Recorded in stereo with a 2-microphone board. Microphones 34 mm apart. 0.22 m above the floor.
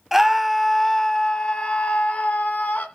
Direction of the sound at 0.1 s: 10° right (ahead or behind).